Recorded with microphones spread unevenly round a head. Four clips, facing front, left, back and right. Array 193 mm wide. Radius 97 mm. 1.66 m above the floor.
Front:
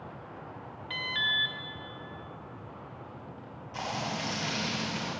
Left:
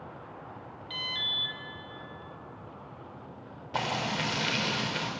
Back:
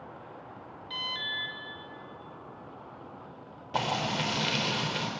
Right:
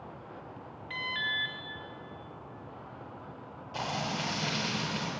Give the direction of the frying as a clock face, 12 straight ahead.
7 o'clock.